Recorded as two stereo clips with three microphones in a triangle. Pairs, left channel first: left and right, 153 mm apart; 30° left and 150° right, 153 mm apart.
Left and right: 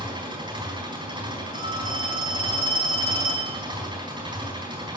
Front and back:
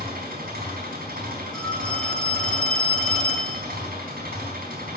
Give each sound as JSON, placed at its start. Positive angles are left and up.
{"t": 0.0, "sound": "an engine running", "azimuth_deg": -150, "distance_m": 4.5}
{"t": 1.5, "sound": "a phone ringing", "azimuth_deg": 115, "distance_m": 5.5}